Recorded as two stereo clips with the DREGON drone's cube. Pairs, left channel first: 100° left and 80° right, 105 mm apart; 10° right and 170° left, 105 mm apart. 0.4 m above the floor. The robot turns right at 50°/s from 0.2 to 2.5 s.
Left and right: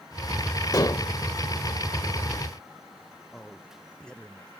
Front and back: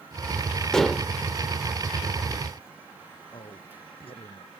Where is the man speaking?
20° left.